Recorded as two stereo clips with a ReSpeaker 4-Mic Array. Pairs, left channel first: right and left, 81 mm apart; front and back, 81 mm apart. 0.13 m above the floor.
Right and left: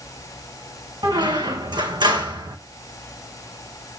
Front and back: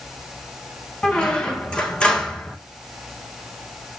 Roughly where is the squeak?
Left.